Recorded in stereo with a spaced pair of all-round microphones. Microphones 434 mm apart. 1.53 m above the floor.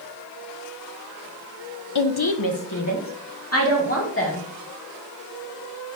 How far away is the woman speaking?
About 0.7 m.